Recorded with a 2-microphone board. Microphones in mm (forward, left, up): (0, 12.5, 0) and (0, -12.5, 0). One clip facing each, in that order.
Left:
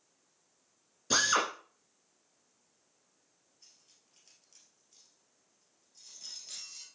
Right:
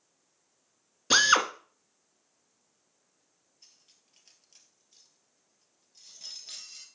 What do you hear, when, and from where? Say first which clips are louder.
1.1 s a drill: right 6 dB; 40° right (ahead or behind), 1.2 m
3.6 s cutlery clinking: right 2 dB; 20° right (ahead or behind), 1.9 m